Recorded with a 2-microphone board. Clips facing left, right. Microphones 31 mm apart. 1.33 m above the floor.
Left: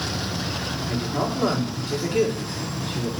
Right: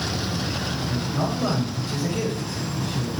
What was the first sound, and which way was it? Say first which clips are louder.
A woman speaking: left 2 dB; 80° left.